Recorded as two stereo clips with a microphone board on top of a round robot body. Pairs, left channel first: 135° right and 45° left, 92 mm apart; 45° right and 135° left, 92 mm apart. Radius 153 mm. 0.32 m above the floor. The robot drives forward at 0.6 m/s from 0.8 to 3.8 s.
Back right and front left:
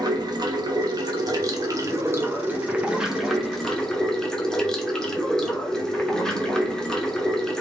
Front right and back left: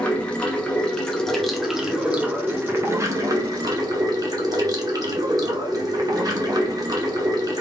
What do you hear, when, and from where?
0.0 s running water: 30° left, 1.6 m; by 7.6 s 145° left, 1.5 m